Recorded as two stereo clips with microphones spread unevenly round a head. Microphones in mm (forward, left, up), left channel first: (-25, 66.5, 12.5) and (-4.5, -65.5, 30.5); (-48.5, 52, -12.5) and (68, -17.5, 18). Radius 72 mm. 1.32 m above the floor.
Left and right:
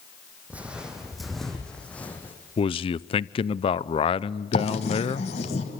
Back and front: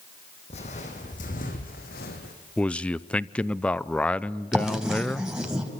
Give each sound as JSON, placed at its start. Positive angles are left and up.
{"t": 0.5, "sound": "footsteps", "azimuth_deg": -160, "distance_m": 3.0}
{"t": 2.6, "sound": "a man speaking", "azimuth_deg": 85, "distance_m": 0.6}
{"t": 4.5, "sound": "writing", "azimuth_deg": 50, "distance_m": 3.0}